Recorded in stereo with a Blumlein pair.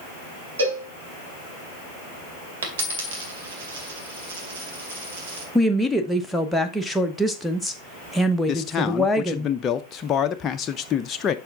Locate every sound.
0.6 s a cowbell: 70° right, 3.5 m
2.6 s a dropped coin: 55° right, 2 m
5.5 s a woman speaking: straight ahead, 1.0 m
8.5 s a man speaking: 25° left, 0.6 m